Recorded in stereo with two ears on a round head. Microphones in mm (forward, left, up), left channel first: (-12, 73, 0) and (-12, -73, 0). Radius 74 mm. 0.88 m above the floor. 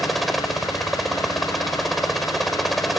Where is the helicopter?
Centre (ahead or behind).